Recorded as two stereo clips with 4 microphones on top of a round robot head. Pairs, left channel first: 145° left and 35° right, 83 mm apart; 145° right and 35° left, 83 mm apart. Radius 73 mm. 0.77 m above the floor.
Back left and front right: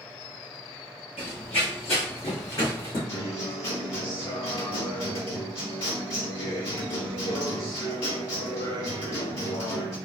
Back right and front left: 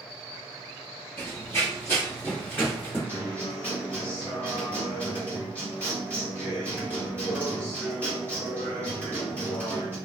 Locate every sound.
1.2 s running footsteps: 145° left, 1.0 m
3.1 s a guitar: 140° left, 1.8 m